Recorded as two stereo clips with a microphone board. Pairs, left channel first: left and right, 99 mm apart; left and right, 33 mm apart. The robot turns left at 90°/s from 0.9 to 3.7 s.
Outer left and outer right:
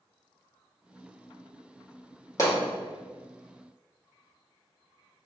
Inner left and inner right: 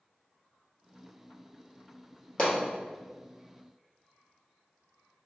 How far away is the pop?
About 1.5 m.